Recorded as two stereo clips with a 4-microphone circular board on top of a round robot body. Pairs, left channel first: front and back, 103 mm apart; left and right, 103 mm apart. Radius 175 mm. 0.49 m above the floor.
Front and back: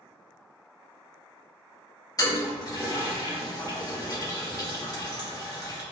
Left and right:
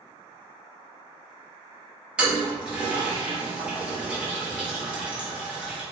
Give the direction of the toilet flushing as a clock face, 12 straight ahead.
1 o'clock.